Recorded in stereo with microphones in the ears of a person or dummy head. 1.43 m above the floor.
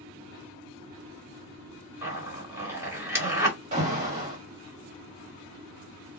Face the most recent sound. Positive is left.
turn(degrees=-40)  # may be behind; listen again after turning